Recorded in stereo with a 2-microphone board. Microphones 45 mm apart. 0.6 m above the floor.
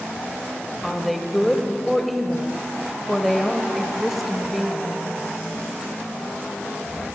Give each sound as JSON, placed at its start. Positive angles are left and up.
{"t": 0.8, "sound": "a woman speaking", "side_deg": 0, "distance_m": 2.0}